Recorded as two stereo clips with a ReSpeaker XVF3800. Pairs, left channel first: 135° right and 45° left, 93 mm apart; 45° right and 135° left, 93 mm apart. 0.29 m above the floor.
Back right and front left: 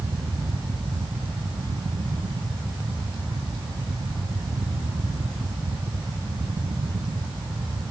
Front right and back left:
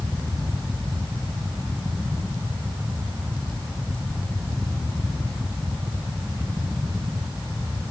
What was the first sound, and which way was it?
Only background noise.